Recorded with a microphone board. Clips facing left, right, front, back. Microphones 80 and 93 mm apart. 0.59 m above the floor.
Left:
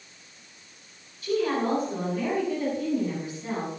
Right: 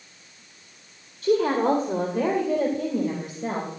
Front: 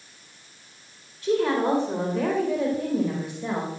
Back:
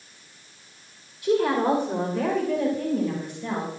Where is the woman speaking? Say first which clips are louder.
Right 5 dB, back 1 dB; 105° right, 2.5 m; by 3.7 s 70° right, 3.5 m.